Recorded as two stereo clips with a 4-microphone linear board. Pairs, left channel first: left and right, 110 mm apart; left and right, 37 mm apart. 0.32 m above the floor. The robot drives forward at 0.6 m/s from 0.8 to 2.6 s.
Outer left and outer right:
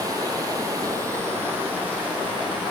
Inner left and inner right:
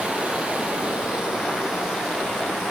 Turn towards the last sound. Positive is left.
turn(degrees=-15)  # may be behind; listen again after turning